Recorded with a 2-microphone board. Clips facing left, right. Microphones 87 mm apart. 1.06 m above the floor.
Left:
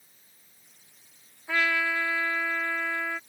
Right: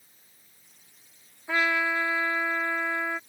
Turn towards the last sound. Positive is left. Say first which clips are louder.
# right 1 dB
turn(degrees=-15)  # may be behind; listen again after turning